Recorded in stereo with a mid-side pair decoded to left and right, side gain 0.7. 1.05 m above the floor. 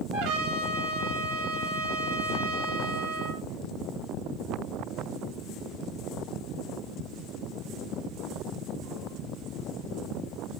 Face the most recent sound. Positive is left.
turn(degrees=-70)